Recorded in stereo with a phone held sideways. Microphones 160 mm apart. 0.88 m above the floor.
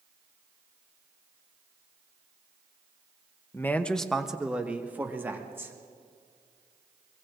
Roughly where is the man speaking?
Centre.